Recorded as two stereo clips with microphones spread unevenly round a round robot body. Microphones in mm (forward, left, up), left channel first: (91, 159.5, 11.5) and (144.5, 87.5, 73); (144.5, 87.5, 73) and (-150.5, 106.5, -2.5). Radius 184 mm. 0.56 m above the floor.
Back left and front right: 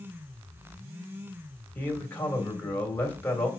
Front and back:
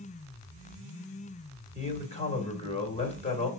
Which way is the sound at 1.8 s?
70° left.